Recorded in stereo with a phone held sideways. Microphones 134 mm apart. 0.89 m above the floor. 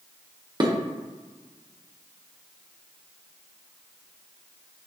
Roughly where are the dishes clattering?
Right.